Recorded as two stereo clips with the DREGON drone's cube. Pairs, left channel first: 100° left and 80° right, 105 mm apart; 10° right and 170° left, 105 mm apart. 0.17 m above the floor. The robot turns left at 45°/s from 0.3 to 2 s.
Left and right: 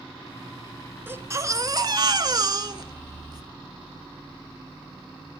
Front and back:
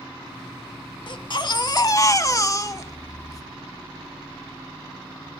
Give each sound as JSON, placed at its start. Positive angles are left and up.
{"t": 1.1, "sound": "a baby crying", "azimuth_deg": -20, "distance_m": 0.5}